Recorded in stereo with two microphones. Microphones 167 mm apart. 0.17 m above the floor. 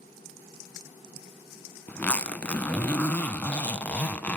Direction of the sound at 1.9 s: 10° left (ahead or behind).